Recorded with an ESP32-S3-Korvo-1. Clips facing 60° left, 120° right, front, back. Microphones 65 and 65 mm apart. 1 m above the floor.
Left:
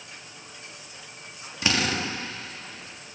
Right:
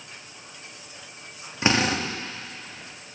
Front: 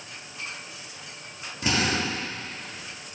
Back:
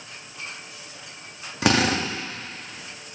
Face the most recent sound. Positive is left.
turn(degrees=180)